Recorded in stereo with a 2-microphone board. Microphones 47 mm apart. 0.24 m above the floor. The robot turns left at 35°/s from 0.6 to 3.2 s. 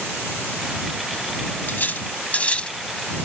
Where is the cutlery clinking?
45° left (ahead or behind); by 3.2 s 15° left (ahead or behind).